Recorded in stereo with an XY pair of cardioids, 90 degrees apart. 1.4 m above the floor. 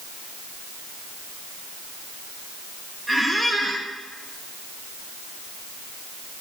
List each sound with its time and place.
3.1 s a squeak: 20° right, 1.3 m